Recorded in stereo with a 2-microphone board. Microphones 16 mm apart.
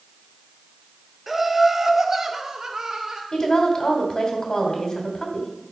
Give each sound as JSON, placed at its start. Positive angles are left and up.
{"t": 1.3, "sound": "laughter", "side_deg": -10, "distance_m": 1.4}
{"t": 3.3, "sound": "a woman speaking", "side_deg": 40, "distance_m": 3.0}